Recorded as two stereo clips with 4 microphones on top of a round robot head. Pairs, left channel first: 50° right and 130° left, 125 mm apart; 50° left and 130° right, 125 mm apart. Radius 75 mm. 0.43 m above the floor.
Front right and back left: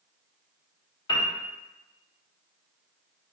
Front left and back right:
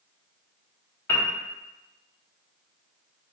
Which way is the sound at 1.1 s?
15° right.